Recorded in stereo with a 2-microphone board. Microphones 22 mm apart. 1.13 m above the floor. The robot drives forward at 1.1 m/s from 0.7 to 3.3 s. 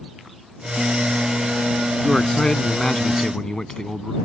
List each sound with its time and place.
2.0 s a man speaking: 25° left (ahead or behind); by 4.2 s 30° left (ahead or behind)